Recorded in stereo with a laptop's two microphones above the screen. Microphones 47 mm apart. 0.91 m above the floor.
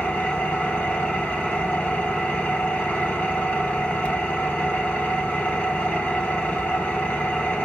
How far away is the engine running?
About 5 m.